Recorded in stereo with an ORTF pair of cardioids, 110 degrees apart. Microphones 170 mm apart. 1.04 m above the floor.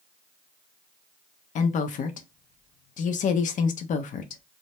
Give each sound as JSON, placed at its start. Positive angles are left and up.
{"t": 1.6, "sound": "a woman speaking", "azimuth_deg": 50, "distance_m": 0.6}